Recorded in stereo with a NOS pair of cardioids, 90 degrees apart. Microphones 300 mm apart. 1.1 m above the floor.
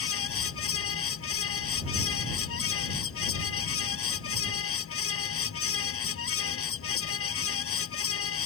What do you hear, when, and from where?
0.0 s a fan: 45° left